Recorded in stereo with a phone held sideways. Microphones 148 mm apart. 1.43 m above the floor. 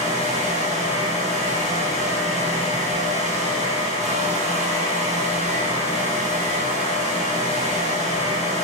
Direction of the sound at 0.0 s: 50° right (ahead or behind).